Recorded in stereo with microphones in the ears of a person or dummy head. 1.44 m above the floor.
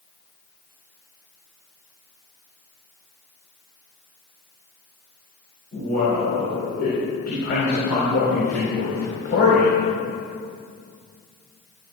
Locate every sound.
5.7 s a man speaking: 60° left (ahead or behind), 4 m